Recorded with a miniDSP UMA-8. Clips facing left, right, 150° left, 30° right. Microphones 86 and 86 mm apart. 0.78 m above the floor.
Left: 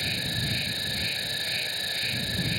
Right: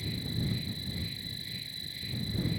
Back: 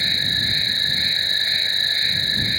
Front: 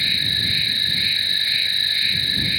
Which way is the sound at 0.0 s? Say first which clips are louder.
Left 3 dB, back 1 dB; 85° left.